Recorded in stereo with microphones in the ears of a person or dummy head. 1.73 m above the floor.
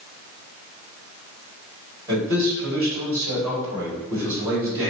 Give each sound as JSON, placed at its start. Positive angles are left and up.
{"t": 2.1, "sound": "a man speaking", "side_deg": -10, "distance_m": 2.0}